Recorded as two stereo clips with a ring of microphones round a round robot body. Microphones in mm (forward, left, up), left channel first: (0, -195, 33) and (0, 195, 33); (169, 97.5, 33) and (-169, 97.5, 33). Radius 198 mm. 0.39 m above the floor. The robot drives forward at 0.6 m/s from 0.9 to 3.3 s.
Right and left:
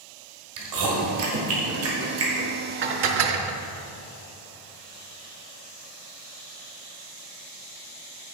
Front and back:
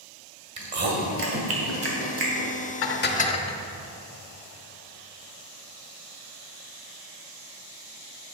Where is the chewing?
125° left, 2 m; by 2.5 s 145° left, 2.5 m.